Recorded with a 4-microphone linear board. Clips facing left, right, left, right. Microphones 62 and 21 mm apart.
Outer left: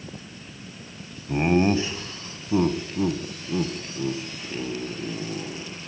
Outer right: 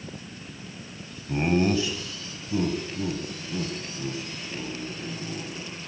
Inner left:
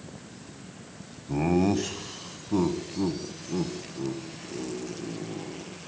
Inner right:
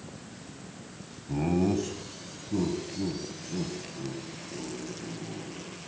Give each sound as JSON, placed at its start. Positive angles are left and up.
{"t": 1.3, "sound": "laughter", "side_deg": 20, "distance_m": 1.1}